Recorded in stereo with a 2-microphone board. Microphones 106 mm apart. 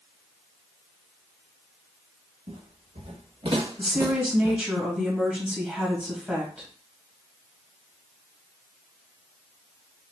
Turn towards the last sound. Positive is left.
turn(degrees=-10)  # may be behind; listen again after turning